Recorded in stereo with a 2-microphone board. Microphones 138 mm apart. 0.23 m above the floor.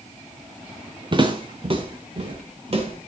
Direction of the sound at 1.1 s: 35° right (ahead or behind).